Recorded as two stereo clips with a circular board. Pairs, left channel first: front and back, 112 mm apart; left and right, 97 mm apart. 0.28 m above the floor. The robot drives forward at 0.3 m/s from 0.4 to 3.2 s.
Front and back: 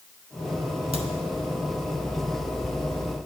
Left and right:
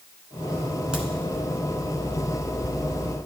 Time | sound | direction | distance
0.9 | a crack | 170° right | 1.2 m